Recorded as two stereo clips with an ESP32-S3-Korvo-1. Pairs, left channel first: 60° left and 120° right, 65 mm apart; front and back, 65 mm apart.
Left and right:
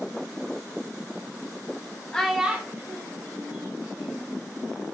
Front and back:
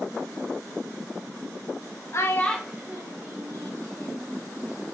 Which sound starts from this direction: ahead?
A child speaking, at 2.1 s.